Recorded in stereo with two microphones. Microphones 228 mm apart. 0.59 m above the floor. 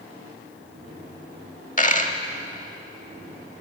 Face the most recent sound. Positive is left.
turn(degrees=35)  # may be behind; listen again after turning